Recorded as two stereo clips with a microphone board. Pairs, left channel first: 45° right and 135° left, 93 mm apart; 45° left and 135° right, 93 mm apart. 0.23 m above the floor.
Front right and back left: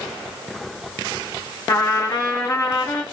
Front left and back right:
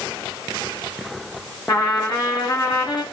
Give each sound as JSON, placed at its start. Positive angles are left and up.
{"t": 1.7, "sound": "a trumpet", "azimuth_deg": 0, "distance_m": 3.0}